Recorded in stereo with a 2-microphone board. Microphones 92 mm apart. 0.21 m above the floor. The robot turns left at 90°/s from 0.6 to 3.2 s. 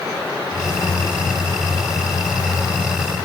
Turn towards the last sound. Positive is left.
No sound to turn to.